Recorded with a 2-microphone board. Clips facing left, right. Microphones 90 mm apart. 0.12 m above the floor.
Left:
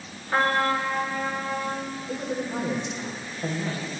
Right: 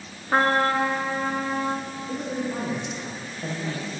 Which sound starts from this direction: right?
A trumpet, at 0.3 s.